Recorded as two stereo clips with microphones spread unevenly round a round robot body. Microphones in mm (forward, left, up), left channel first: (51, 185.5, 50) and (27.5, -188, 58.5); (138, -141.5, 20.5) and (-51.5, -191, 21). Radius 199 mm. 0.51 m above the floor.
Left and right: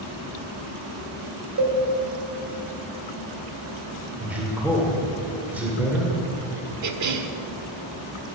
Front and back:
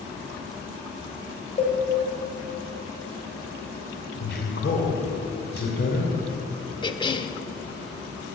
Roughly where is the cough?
Ahead right.